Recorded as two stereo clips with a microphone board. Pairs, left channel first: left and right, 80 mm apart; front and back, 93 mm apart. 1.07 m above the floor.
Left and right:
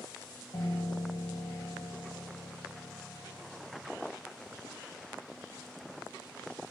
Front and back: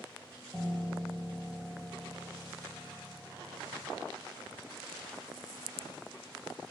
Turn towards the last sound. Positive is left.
turn(degrees=80)